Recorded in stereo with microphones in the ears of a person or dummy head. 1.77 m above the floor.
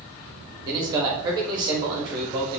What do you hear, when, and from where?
0.7 s a man speaking: 25° right (ahead or behind), 0.8 m